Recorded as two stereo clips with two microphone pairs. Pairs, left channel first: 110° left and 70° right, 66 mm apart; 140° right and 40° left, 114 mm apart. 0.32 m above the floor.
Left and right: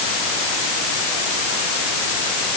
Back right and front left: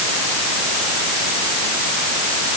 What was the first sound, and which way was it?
Only background noise.